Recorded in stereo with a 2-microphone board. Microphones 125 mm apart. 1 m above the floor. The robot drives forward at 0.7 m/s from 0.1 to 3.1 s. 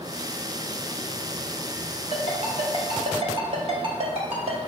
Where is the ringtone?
70° right (ahead or behind), 1.9 m; by 4.6 s 55° right (ahead or behind), 2 m.